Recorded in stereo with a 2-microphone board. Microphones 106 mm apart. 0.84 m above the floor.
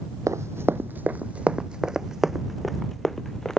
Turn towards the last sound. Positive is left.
turn(degrees=5)  # may be behind; listen again after turning